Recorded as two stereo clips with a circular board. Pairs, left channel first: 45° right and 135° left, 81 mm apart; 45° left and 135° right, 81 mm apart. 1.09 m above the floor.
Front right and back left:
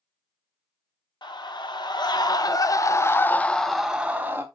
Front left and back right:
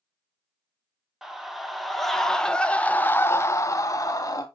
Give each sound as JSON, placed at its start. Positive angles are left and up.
{"t": 1.2, "sound": "a scream", "azimuth_deg": -50, "distance_m": 1.4}